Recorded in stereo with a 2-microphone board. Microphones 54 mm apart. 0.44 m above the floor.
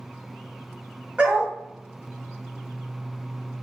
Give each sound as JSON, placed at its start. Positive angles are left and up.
{"t": 1.2, "sound": "a dog barking", "side_deg": -25, "distance_m": 1.1}